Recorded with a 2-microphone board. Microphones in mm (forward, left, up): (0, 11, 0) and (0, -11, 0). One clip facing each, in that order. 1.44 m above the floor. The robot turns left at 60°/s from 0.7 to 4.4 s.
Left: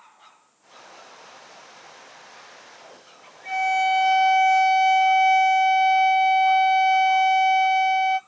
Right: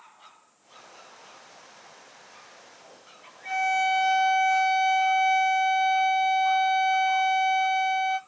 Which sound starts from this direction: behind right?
A violin, at 3.5 s.